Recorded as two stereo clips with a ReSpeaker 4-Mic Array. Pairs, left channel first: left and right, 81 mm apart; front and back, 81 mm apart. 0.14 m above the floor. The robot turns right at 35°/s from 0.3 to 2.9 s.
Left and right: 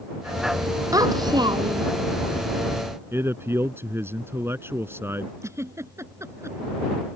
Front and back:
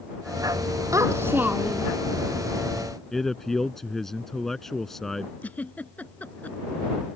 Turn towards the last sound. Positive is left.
turn(degrees=-60)